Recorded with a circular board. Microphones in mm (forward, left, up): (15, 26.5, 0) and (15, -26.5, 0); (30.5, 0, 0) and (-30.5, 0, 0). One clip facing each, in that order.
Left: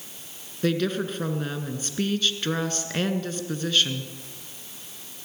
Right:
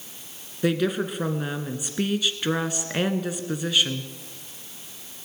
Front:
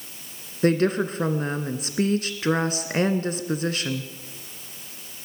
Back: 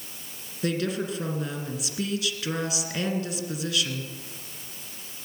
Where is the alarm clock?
I don't hear an alarm clock.